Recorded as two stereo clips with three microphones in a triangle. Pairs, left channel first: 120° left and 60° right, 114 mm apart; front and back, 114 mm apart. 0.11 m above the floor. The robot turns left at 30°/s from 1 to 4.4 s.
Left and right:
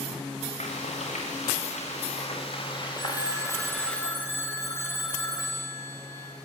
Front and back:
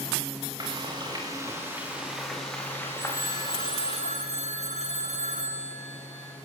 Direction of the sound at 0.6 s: 130° left.